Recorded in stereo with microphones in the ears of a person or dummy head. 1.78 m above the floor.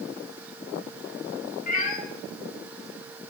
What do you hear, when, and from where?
1.7 s a cat meowing: 55° left (ahead or behind), 2.5 m